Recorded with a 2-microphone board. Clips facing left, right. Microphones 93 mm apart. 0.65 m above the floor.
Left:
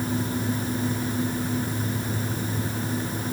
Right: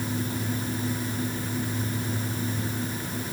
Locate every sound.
Only background noise.